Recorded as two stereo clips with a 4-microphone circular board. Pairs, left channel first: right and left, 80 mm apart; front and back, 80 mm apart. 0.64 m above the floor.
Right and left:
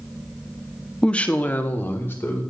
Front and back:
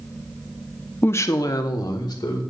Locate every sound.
1.0 s a woman speaking: 15° right, 0.5 m; by 2.4 s 30° right, 1.8 m